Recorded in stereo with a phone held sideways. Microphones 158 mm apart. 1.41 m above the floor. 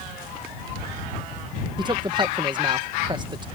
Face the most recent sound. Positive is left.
turn(degrees=-30)  # may be behind; listen again after turning